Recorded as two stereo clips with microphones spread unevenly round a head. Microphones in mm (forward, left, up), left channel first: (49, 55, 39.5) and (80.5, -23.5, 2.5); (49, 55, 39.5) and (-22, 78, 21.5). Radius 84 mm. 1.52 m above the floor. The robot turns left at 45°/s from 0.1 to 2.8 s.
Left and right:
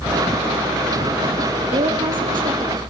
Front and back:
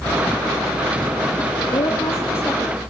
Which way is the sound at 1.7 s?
60° right.